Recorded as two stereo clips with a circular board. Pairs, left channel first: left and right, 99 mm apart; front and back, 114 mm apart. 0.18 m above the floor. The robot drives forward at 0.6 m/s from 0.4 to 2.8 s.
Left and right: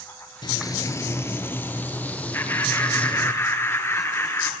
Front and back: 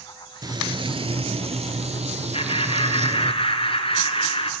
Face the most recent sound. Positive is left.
turn(degrees=30)